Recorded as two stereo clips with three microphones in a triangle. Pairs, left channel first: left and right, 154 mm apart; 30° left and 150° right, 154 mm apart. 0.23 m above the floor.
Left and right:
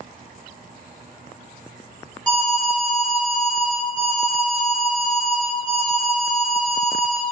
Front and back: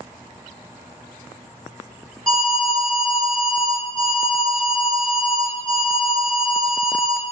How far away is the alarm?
About 1.2 m.